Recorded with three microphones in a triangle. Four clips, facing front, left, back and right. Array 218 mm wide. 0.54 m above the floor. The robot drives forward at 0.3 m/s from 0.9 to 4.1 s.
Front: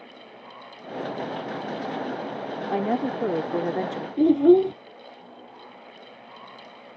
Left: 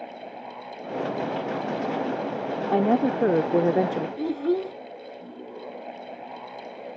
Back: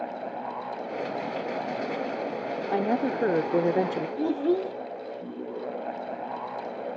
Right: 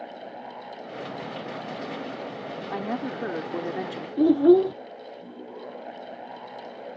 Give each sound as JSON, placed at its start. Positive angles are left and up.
{"t": 2.7, "sound": "a woman speaking", "azimuth_deg": 90}
{"t": 4.2, "sound": "a child speaking", "azimuth_deg": -30}